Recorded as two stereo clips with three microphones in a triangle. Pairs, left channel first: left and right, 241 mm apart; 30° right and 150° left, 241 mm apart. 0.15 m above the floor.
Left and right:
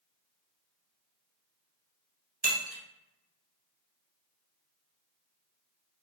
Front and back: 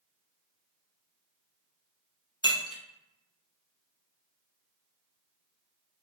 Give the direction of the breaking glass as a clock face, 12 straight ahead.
3 o'clock.